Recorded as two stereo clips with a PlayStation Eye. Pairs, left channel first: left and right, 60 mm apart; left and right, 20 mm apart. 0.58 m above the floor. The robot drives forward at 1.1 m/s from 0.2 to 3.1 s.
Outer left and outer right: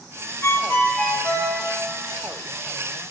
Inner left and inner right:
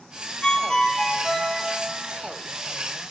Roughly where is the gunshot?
No gunshot in this recording.